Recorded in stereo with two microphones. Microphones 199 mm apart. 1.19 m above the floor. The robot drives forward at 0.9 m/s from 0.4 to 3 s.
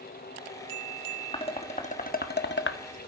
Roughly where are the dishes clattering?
Left.